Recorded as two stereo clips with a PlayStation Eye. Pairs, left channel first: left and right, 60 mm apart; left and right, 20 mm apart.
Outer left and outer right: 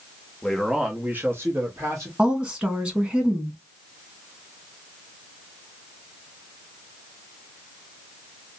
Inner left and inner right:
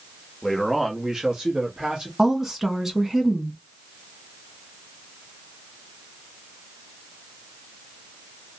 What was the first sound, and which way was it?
A man speaking, 5° left (ahead or behind).